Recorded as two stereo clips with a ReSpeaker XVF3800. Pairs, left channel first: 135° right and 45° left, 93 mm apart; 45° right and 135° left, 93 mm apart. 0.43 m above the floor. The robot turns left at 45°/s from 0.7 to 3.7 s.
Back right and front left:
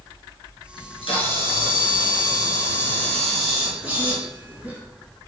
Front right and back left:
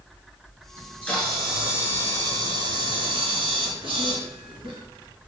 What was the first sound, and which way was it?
A camera shutter, 105° right.